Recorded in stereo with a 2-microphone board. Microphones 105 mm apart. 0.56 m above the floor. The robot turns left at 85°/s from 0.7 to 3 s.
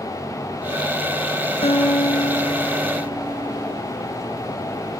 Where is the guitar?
100° left, 4 m; by 3.8 s 20° right, 4 m.